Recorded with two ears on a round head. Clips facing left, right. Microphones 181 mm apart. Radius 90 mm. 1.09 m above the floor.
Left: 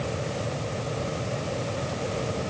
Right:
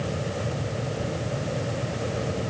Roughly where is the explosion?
I don't hear an explosion.